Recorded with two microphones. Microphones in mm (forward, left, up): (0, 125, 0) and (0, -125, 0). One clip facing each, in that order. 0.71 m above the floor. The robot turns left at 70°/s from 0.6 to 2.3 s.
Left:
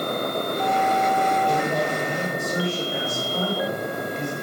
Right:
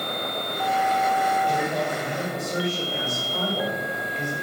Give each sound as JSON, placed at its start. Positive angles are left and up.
{"t": 1.5, "sound": "a man speaking", "azimuth_deg": 70, "distance_m": 3.0}